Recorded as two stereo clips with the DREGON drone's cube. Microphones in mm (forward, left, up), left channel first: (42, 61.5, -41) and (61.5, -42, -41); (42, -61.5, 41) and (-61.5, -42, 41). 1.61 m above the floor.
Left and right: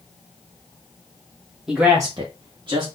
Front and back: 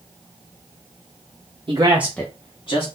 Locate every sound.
1.7 s a man speaking: 165° right, 0.8 m; by 2.9 s 35° right, 1.2 m